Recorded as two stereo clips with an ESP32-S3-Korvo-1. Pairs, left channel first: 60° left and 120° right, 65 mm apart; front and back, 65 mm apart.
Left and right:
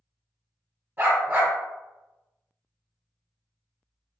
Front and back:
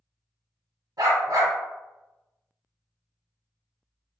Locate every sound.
1.0 s a dog barking: straight behind, 1.0 m